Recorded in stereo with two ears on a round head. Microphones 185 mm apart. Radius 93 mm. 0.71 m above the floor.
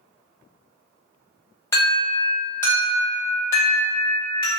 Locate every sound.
1.7 s an alarm: 15° left (ahead or behind), 1.2 m